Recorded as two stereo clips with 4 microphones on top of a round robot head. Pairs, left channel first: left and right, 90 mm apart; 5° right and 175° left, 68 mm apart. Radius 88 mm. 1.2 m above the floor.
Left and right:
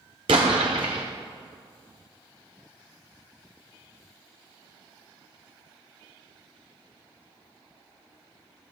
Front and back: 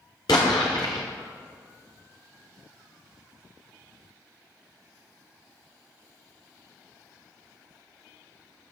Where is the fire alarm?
I don't hear a fire alarm.